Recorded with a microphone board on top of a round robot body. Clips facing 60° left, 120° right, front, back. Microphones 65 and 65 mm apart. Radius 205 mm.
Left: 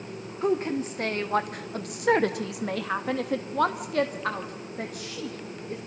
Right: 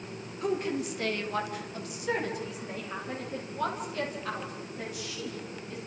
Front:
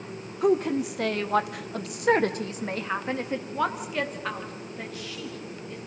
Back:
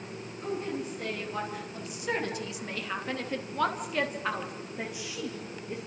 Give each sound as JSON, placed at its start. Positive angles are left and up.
{"t": 0.4, "sound": "a woman speaking", "azimuth_deg": 0, "distance_m": 2.5}